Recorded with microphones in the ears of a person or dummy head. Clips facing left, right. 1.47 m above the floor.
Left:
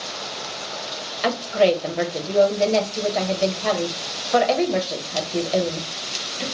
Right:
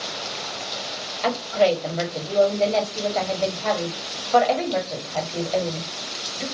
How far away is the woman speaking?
About 0.8 m.